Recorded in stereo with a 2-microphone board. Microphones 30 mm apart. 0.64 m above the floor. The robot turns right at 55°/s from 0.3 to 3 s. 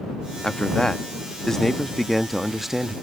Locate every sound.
0.4 s a man speaking: 25° left (ahead or behind); by 2.9 s 15° right (ahead or behind)